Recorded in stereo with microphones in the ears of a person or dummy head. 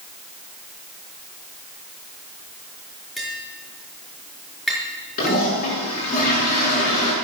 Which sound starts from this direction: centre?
Tapping, at 3.2 s.